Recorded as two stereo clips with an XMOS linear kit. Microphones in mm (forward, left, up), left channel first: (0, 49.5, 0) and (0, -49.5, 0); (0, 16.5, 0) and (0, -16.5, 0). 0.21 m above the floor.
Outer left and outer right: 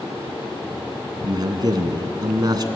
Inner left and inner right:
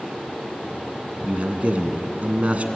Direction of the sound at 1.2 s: 45° right (ahead or behind).